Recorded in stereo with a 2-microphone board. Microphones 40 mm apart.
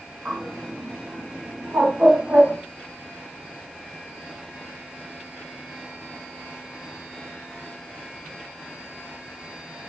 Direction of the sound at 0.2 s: 60° right (ahead or behind).